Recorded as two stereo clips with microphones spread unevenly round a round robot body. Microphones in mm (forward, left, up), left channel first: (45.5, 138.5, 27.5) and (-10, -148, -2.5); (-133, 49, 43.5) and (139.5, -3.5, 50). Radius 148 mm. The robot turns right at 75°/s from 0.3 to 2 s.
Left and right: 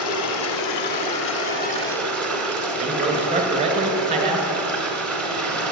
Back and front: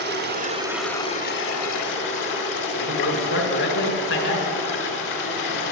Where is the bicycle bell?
I don't hear a bicycle bell.